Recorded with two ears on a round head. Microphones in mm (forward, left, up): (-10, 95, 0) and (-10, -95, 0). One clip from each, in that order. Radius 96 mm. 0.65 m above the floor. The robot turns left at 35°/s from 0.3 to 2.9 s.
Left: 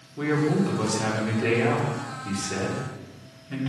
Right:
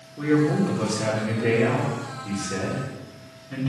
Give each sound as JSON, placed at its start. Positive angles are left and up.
{"t": 0.2, "sound": "a man speaking", "azimuth_deg": 115, "distance_m": 1.9}